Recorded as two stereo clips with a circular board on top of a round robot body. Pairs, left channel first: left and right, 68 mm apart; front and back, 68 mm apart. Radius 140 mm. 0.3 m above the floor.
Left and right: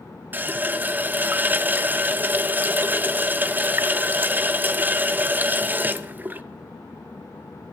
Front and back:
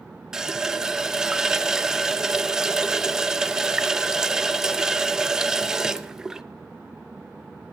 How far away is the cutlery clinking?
No cutlery clinking in this recording.